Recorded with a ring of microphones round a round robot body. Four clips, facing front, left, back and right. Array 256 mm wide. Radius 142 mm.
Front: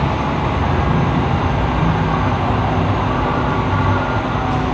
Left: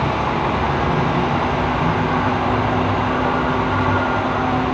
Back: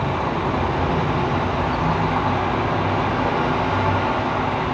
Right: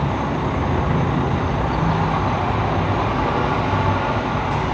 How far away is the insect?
About 7 m.